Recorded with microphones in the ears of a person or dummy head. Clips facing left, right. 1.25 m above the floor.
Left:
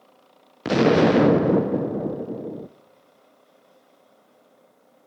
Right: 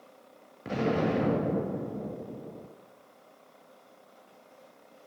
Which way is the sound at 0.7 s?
70° left (ahead or behind).